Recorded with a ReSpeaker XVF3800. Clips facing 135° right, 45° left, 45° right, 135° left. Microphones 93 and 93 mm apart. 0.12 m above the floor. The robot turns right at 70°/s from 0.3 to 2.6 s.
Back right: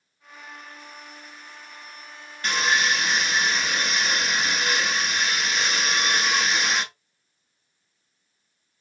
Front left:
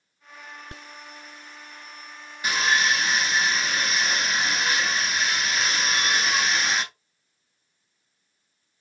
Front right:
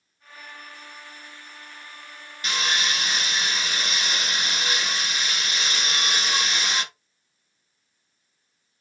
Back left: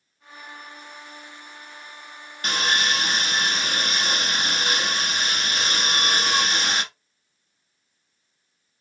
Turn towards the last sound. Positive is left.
turn(degrees=130)